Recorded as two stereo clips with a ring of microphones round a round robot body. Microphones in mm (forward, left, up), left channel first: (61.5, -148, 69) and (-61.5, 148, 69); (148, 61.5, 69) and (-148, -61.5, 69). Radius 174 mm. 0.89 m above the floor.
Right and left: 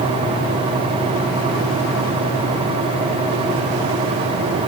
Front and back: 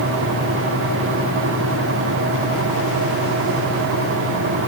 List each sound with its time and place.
Only background noise.